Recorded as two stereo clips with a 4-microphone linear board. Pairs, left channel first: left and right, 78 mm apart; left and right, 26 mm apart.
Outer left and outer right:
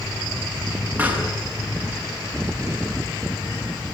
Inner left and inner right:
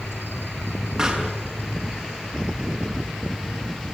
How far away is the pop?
About 6 m.